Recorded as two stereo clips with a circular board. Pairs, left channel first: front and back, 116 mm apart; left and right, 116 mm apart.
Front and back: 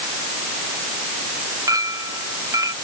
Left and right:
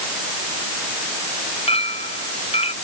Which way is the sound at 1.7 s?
120° left.